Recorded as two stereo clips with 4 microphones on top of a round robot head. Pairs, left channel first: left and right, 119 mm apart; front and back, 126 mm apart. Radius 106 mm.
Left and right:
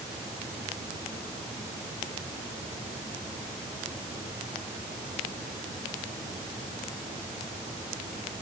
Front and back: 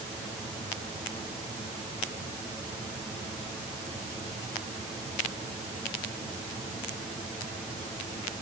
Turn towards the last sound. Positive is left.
No sound to turn to.